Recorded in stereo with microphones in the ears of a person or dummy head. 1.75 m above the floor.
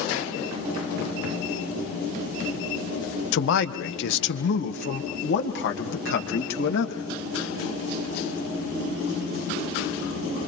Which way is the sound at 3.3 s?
70° left (ahead or behind).